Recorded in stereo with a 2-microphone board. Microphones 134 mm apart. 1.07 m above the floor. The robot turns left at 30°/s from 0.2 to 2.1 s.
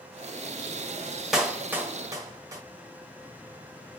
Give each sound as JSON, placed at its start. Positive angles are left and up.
{"t": 1.3, "sound": "a clap", "side_deg": -5, "distance_m": 1.3}